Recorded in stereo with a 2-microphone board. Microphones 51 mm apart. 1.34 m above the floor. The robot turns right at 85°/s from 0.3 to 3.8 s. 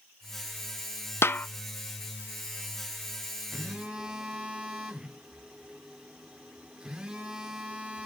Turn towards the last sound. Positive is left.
turn(degrees=-15)  # may be behind; listen again after turning